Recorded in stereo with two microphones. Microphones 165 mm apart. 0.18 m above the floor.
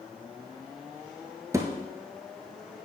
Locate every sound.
1.5 s a thud: 20° right (ahead or behind), 0.9 m